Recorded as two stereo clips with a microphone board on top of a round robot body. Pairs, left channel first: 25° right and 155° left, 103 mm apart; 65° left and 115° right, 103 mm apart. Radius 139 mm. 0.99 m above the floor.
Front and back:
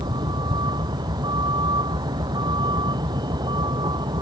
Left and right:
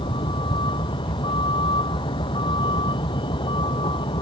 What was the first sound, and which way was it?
A vehicle, 110° left.